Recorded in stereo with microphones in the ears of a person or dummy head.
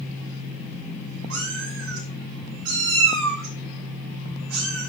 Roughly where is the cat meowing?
Right.